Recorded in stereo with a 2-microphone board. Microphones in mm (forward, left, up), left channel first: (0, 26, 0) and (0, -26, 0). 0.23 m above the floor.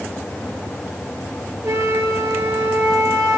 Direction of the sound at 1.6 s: 75° right (ahead or behind).